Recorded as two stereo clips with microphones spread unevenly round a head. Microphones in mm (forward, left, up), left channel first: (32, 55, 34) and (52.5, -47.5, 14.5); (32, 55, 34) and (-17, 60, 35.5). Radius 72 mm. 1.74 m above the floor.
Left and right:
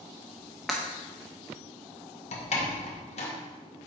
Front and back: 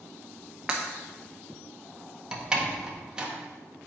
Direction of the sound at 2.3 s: 105° left.